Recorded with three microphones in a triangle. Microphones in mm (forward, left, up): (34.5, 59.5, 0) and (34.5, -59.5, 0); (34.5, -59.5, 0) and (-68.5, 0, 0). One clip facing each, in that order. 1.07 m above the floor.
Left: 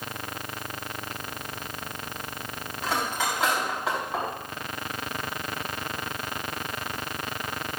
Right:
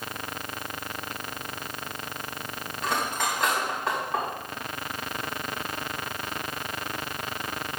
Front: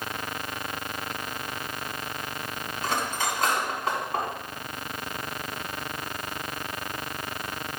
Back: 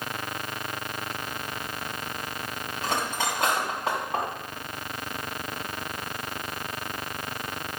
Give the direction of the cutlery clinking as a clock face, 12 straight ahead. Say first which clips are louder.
Even, even; 6 o'clock.